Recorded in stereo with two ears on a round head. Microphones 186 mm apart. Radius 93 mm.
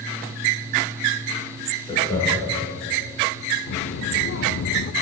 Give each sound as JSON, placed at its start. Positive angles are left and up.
{"t": 1.9, "sound": "laughter", "side_deg": 25, "distance_m": 6.0}
{"t": 3.7, "sound": "a child speaking", "side_deg": 60, "distance_m": 0.6}